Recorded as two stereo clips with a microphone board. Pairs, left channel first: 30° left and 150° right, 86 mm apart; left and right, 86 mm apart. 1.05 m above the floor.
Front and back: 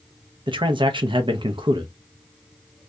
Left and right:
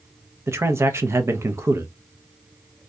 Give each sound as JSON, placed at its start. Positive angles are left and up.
{"t": 0.5, "sound": "a man speaking", "azimuth_deg": -145, "distance_m": 0.7}